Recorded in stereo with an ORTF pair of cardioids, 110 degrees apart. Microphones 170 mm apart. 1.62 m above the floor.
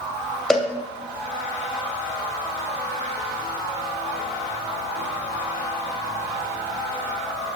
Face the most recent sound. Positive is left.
turn(degrees=0)